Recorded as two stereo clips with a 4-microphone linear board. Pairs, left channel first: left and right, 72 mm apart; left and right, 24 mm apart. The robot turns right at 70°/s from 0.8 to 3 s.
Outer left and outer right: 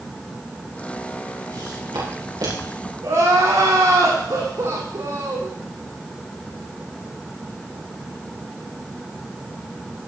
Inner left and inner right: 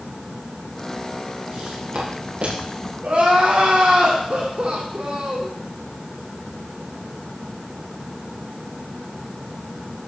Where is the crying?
50° right (ahead or behind), 5.5 m.